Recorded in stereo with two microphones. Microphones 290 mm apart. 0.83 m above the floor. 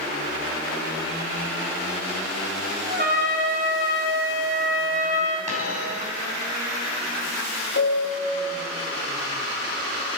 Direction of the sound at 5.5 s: 25° right (ahead or behind).